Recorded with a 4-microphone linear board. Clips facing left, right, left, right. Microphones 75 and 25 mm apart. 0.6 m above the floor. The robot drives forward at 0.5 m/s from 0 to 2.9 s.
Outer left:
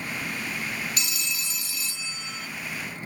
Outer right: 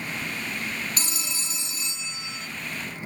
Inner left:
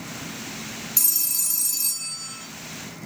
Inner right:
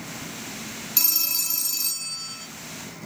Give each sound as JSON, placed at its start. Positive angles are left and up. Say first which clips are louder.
{"t": 1.0, "sound": "a phone ringing", "louder": "outer left 1 dB, inner right 2 dB", "side_deg": -35, "distance_m": 0.7}